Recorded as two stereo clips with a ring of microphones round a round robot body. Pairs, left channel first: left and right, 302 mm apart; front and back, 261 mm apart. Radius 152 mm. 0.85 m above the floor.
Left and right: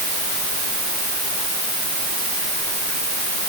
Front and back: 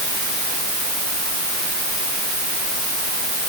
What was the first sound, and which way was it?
Only background noise.